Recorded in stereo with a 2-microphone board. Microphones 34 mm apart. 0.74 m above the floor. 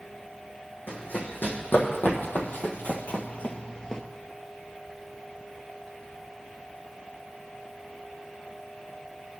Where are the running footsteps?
75° left (ahead or behind), 2.5 m; by 4.0 s 20° left (ahead or behind), 0.9 m.